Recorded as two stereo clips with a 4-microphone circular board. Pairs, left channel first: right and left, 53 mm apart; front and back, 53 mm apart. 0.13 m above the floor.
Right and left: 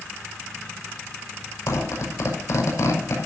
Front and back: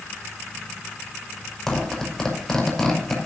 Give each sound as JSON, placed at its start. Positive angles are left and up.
{"t": 1.7, "sound": "a zipper", "azimuth_deg": -80, "distance_m": 5.5}